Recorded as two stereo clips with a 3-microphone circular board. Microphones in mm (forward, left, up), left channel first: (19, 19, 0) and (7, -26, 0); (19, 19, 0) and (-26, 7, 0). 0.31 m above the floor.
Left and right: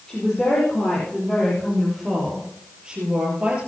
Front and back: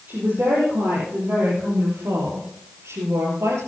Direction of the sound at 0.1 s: 150° left.